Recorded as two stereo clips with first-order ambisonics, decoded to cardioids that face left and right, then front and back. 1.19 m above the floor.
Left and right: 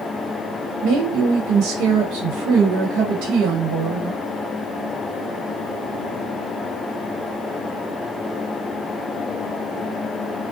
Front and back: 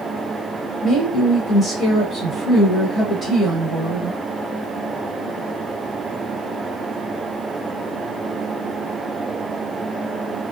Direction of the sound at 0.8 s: 70° right.